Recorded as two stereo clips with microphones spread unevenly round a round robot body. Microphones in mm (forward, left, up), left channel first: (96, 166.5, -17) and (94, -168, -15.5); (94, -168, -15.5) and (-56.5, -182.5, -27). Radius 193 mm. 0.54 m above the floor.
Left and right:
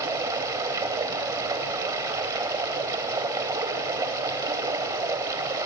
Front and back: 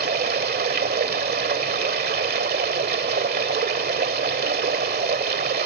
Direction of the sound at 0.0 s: 170° right.